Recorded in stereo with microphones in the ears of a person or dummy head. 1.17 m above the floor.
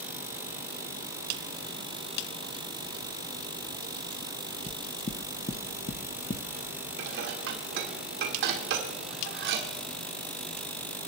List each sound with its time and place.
4.7 s knocking: 30° left (ahead or behind), 0.8 m
7.0 s dishes clattering: 55° right (ahead or behind), 1.8 m